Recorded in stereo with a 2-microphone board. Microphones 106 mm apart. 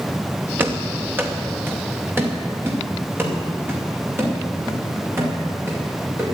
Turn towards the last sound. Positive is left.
turn(degrees=-20)  # may be behind; listen again after turning